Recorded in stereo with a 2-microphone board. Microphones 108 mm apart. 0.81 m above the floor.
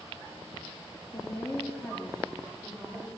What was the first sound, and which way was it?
A woman speaking, 35° left (ahead or behind).